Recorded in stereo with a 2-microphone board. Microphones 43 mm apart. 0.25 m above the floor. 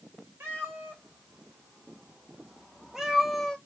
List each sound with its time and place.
0.4 s a cat meowing: 70° right (ahead or behind), 1.7 m; by 3.6 s 15° left (ahead or behind), 0.7 m